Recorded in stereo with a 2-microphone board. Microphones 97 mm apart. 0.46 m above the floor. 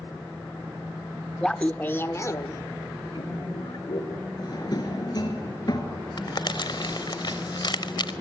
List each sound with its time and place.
1.4 s laughter: 5° left (ahead or behind), 0.9 m; by 4.2 s 60° left (ahead or behind), 2.0 m
4.4 s a drawer: 50° left (ahead or behind), 3 m
6.2 s crumpling: 55° left (ahead or behind), 1.0 m